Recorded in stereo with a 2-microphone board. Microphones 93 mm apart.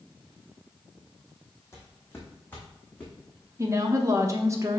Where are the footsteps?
30° left (ahead or behind), 1.8 m; by 3.5 s 15° left (ahead or behind), 3 m.